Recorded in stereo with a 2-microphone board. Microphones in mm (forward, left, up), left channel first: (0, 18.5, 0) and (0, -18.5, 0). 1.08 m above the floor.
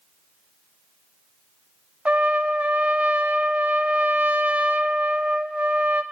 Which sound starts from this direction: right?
A trumpet, at 2.0 s.